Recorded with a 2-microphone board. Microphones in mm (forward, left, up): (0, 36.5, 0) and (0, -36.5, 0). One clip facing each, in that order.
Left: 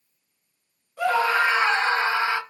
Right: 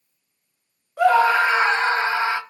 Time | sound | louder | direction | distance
1.0 | a scream | right 5 dB | 55° right (ahead or behind) | 2 m